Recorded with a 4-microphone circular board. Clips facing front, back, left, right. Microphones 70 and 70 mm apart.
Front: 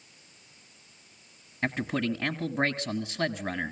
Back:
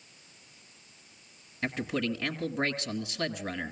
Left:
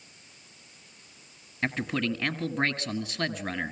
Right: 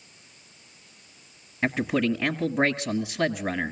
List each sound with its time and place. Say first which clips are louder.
1.6 s a man speaking: front 2 dB, right 5 dB; 25° right, 1.1 m